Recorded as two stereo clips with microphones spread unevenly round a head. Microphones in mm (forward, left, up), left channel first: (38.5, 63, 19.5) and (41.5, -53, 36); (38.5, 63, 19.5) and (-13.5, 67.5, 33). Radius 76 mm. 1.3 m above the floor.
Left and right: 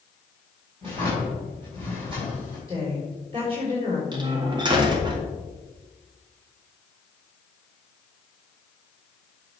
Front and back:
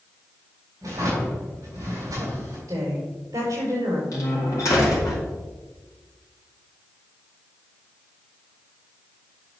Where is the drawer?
145° right, 4 m.